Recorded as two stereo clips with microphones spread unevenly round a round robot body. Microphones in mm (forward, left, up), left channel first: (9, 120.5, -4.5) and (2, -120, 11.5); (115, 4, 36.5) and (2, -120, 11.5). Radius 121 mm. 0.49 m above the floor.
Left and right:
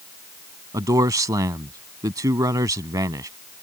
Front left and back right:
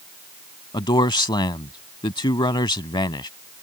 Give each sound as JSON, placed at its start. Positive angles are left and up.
{"t": 0.7, "sound": "a man speaking", "azimuth_deg": -15}